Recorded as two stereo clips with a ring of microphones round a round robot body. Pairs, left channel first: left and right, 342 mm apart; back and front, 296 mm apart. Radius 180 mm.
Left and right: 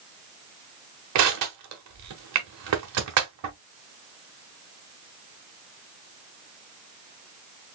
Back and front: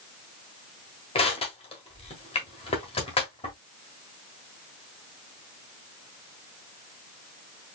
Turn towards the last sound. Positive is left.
turn(degrees=-110)